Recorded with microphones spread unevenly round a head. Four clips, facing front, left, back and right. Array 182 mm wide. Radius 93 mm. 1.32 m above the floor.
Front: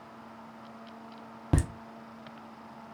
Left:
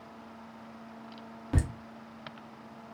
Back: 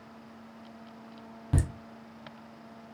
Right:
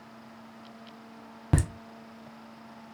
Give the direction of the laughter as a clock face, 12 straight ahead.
1 o'clock.